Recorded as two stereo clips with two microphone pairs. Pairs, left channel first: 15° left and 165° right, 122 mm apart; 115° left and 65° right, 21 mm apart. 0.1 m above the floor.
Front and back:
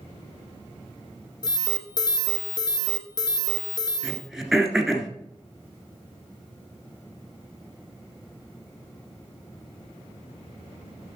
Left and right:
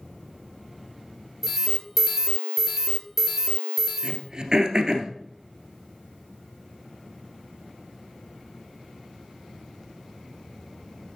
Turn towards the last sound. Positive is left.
turn(degrees=-80)